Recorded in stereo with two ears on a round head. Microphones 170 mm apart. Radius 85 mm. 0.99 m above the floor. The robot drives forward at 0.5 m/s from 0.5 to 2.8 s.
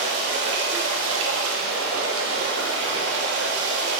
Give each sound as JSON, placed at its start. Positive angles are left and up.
{"t": 0.0, "sound": "running water", "side_deg": -60, "distance_m": 1.4}